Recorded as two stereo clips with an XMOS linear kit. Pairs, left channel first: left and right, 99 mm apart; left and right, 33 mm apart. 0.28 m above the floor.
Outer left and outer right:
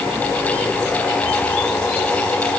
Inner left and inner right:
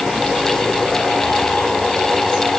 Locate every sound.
Only background noise.